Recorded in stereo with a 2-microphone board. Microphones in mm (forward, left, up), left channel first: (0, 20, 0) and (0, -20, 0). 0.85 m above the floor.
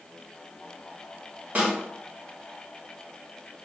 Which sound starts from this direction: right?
A snare drum, at 1.6 s.